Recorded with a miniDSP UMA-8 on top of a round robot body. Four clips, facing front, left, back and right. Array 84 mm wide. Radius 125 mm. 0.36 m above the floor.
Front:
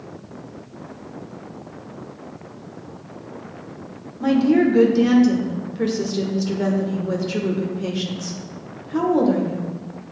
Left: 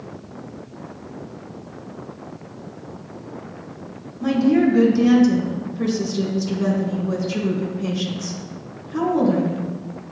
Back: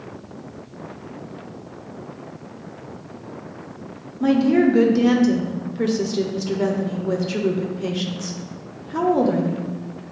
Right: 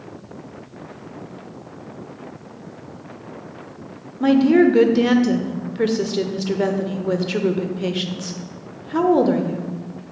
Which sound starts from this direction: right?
A woman speaking, at 4.2 s.